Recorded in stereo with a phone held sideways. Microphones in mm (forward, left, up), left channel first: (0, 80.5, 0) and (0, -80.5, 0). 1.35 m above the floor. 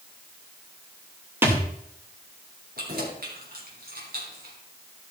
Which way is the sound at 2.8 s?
70° right (ahead or behind).